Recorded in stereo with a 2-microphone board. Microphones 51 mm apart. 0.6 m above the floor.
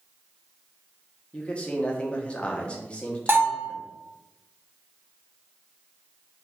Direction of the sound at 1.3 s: 25° left (ahead or behind).